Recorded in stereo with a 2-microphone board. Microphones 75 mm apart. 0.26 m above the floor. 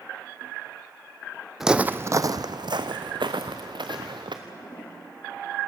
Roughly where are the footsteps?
Centre.